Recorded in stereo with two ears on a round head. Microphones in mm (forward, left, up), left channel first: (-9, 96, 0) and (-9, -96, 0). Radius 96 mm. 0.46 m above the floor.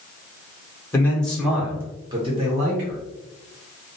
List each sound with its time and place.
0.9 s a man speaking: 10° left (ahead or behind), 1.0 m; by 3.0 s 40° right (ahead or behind), 1.1 m